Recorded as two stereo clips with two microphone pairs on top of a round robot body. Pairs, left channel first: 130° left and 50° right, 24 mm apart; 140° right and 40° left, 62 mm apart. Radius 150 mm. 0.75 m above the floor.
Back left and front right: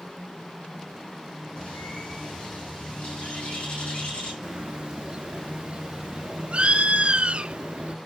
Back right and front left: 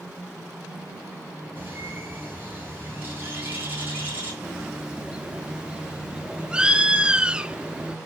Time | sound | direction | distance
1.6 | a bird | 100° left | 5.5 m
4.4 | a bird | 35° right | 0.9 m